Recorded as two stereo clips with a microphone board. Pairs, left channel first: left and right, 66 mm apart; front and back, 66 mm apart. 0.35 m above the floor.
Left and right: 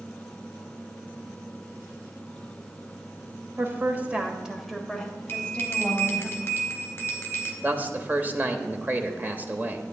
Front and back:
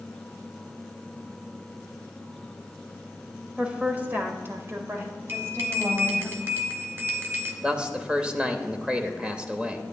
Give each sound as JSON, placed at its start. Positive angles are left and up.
{"t": 3.6, "sound": "a woman speaking", "azimuth_deg": -115, "distance_m": 1.3}
{"t": 5.3, "sound": "a bell", "azimuth_deg": 135, "distance_m": 1.7}
{"t": 7.6, "sound": "a man speaking", "azimuth_deg": -120, "distance_m": 0.9}